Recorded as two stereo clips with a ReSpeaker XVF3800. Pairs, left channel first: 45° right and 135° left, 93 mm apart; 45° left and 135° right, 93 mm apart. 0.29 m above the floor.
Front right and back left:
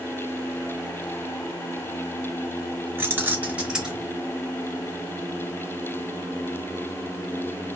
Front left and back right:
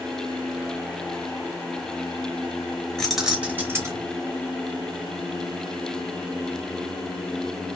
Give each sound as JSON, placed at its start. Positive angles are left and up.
{"t": 3.0, "sound": "keys jangling", "azimuth_deg": 125, "distance_m": 1.0}